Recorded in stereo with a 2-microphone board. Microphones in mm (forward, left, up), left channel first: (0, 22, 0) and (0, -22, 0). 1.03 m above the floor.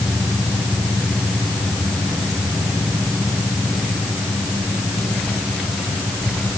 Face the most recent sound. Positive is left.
No sound to turn to.